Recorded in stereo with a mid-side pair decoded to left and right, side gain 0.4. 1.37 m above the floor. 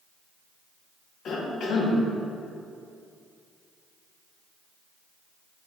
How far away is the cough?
About 1.4 m.